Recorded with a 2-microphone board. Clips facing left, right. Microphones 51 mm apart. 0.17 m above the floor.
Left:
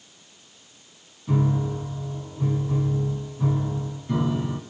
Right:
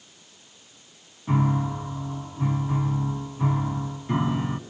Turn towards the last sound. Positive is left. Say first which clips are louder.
# even
turn(degrees=-35)  # may be behind; listen again after turning